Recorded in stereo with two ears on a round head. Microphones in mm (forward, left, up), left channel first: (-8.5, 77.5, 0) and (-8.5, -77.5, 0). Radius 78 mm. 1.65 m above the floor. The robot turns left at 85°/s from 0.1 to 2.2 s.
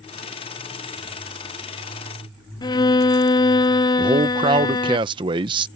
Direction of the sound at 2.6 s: 25° left (ahead or behind).